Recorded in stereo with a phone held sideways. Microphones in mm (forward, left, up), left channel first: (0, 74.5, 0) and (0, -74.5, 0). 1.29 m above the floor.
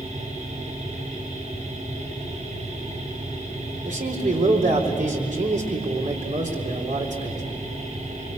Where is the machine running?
55° right (ahead or behind), 9 m.